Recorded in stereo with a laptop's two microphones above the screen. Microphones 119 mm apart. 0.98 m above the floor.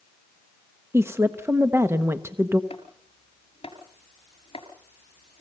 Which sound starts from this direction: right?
A woman speaking, at 0.9 s.